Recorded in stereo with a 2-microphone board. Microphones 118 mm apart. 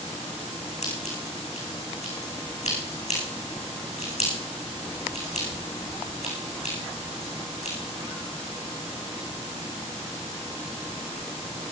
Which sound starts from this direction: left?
Scissors, at 0.8 s.